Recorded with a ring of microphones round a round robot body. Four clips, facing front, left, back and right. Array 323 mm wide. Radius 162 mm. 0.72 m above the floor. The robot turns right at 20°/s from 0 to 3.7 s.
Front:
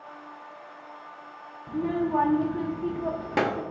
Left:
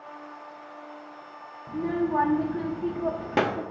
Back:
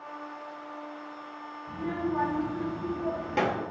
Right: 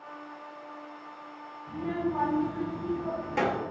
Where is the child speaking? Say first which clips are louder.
Left 4 dB, front 5 dB; 35° left, 1.0 m; by 3.6 s 70° left, 1.0 m.